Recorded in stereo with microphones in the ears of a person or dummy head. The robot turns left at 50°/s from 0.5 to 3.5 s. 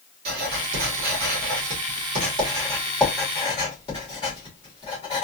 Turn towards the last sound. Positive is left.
turn(degrees=25)  # may be behind; listen again after turning